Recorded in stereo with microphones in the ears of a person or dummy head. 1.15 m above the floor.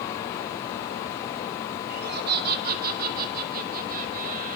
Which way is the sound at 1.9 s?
65° right (ahead or behind).